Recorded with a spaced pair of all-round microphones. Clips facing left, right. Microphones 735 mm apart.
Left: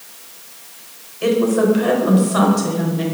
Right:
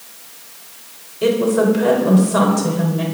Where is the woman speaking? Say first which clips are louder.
Even; 65° right (ahead or behind), 4 m; by 3.0 s 80° right, 4.5 m.